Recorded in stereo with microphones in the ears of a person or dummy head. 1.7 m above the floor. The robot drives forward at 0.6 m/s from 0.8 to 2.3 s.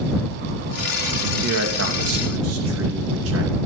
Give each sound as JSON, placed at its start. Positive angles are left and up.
{"t": 1.4, "sound": "a man speaking", "side_deg": -75, "distance_m": 2.5}